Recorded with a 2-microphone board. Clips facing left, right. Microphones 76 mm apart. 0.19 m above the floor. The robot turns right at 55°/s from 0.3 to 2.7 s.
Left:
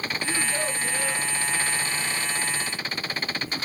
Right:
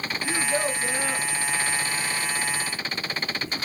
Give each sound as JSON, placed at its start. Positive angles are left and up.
{"t": 0.2, "sound": "a child speaking", "azimuth_deg": -160, "distance_m": 1.0}